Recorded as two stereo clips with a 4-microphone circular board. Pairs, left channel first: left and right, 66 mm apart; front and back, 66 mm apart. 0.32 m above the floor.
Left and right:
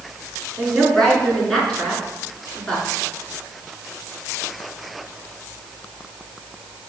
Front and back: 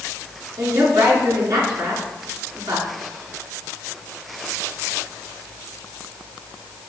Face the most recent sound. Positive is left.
turn(degrees=175)